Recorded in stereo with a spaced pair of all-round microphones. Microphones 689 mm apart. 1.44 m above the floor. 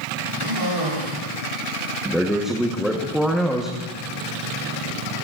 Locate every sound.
0.4 s a cough: 80° right, 8 m
2.0 s a man speaking: centre (ahead or behind), 1.1 m